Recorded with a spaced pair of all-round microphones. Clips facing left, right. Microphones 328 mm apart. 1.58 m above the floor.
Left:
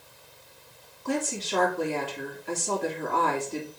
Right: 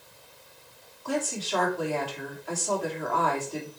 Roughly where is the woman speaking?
Left.